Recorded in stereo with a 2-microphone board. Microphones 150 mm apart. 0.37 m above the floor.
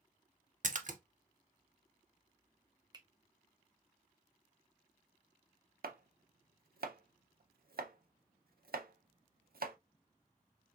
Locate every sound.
0.6 s a splash: 55° right (ahead or behind), 0.6 m
2.9 s a finger snap: 30° right (ahead or behind), 0.8 m
5.8 s chopping: 80° right, 0.5 m